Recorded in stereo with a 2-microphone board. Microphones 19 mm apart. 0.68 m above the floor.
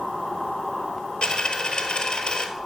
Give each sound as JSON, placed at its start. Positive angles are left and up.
{"t": 1.2, "sound": "a dropped coin", "side_deg": 60, "distance_m": 1.3}